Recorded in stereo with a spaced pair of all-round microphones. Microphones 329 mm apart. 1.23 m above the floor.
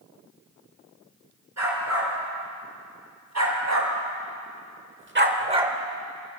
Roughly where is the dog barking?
Right.